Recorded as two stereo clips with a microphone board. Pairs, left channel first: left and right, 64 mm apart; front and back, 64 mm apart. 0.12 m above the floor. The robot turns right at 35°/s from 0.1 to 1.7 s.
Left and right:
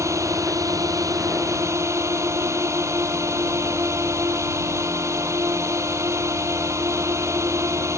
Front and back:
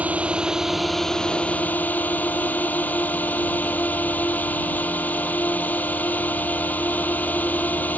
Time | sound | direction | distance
0.0 | a drone | 115° right | ?